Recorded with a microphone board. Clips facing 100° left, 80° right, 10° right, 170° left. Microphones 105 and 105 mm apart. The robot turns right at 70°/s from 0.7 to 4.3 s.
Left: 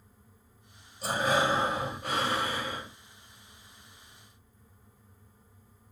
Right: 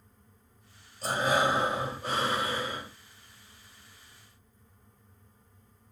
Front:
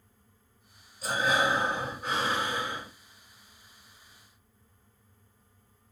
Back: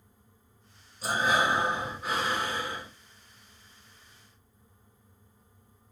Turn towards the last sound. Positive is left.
turn(degrees=45)